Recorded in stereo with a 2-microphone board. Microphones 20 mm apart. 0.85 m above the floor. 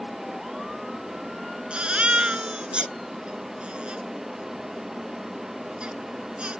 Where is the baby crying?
60° right (ahead or behind).